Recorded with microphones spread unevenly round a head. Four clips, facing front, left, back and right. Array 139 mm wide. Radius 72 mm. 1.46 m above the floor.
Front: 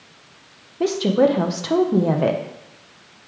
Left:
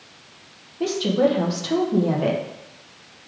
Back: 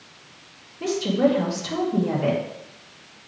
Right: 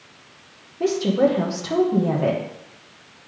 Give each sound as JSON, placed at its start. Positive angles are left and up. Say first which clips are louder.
{"t": 0.8, "sound": "a woman speaking", "louder": "right 1 dB, front 4 dB", "azimuth_deg": -5, "distance_m": 1.2}